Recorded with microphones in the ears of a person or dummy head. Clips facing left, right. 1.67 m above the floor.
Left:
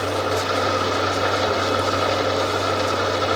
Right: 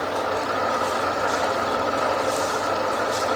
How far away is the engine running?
About 3 m.